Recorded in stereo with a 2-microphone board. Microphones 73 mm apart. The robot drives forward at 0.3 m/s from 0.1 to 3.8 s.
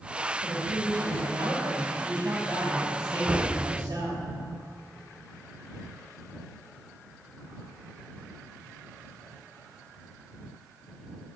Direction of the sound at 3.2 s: 50° right (ahead or behind).